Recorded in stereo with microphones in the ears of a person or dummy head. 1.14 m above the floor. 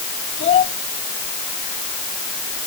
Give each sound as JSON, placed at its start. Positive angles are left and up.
{"t": 0.4, "sound": "a child speaking", "side_deg": 45}